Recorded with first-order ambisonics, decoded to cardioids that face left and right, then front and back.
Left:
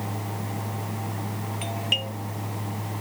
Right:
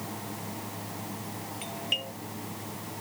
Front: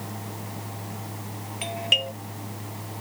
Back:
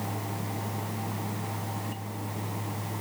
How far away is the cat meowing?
No cat meowing in this recording.